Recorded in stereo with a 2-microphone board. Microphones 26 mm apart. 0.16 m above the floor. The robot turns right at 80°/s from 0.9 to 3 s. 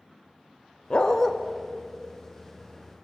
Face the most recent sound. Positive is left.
turn(degrees=-55)